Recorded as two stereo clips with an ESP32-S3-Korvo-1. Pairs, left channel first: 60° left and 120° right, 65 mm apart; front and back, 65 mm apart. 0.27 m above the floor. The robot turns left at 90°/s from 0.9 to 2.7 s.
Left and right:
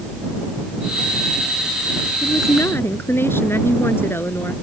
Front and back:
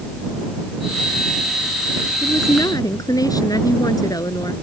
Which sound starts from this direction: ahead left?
A woman speaking, at 2.2 s.